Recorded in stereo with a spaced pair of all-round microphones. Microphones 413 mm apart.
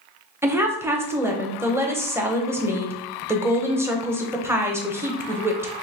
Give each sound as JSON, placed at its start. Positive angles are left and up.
{"t": 0.4, "sound": "a woman speaking", "side_deg": -5, "distance_m": 0.7}